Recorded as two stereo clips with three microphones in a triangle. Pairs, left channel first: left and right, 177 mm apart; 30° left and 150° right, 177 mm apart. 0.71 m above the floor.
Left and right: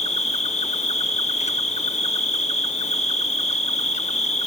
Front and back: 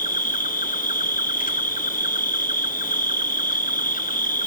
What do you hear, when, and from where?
0.0 s an insect: 50° left, 0.8 m